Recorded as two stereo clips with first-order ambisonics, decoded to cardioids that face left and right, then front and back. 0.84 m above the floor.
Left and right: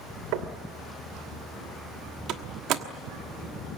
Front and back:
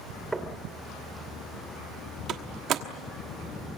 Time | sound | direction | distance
0.3 | knocking | 100° right | 1.8 m
2.3 | a door slam | 130° right | 1.2 m